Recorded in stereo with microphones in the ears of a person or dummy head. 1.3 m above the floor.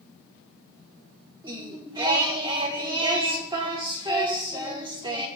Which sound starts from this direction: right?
Singing, at 1.4 s.